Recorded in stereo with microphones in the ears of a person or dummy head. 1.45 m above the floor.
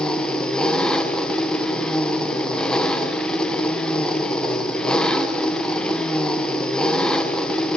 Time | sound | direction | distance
0.0 | an engine running | centre (ahead or behind) | 0.8 m